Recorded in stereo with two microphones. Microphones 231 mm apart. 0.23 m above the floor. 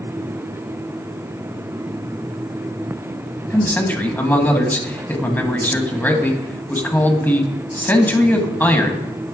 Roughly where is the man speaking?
Centre.